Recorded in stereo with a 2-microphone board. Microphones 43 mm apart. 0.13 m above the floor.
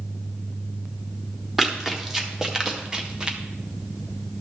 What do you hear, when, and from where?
1.6 s running footsteps: 10° right (ahead or behind), 2.5 m; by 3.4 s 25° right (ahead or behind), 2 m